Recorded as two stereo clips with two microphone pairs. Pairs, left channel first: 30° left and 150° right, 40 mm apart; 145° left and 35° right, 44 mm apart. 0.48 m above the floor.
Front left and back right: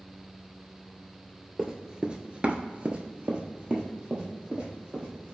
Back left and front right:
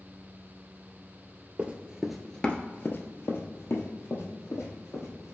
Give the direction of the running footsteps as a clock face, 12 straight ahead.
3 o'clock.